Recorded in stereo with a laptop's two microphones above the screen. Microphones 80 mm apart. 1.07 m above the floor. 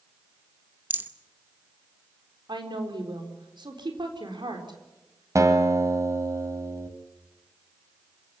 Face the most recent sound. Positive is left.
turn(degrees=-40)  # may be behind; listen again after turning